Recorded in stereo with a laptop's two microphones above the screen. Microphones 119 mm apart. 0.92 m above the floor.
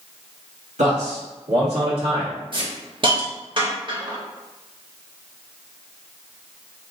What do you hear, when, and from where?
0.8 s a man speaking: 80° right, 1.4 m; by 2.3 s 40° right (ahead or behind), 1.8 m
2.5 s a hiss: 45° right (ahead or behind), 0.7 m